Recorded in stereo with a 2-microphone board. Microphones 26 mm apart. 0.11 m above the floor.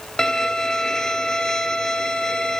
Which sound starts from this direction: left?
A violin, at 0.2 s.